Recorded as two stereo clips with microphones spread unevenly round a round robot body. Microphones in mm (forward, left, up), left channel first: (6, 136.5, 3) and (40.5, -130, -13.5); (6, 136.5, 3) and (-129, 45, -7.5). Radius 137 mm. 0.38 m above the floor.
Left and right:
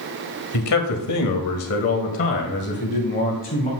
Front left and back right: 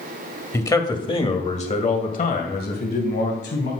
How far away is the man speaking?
About 1.7 m.